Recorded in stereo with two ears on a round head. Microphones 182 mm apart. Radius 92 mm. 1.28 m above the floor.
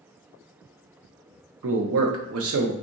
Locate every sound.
1.6 s a man speaking: 70° right (ahead or behind), 0.6 m